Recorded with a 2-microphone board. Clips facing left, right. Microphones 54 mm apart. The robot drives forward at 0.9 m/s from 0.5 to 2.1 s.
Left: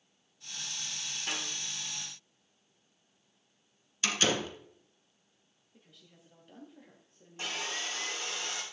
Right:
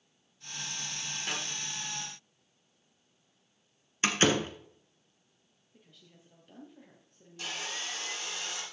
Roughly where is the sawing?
Left.